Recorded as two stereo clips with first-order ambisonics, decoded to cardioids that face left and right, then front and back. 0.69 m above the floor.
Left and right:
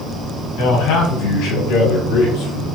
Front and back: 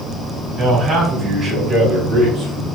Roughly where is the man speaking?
Left.